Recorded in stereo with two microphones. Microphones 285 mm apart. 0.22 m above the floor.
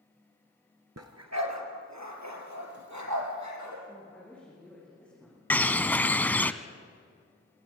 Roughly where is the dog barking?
Right.